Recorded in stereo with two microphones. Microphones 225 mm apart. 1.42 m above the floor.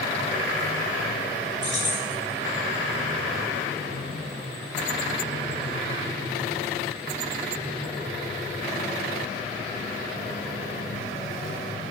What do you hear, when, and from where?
1.6 s keys jangling: 15° right (ahead or behind), 4 m